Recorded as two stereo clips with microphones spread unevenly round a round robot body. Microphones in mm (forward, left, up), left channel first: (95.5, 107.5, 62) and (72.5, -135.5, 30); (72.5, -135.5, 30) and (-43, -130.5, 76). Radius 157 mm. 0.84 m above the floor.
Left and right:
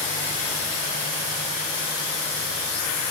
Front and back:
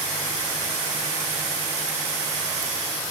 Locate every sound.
Only background noise.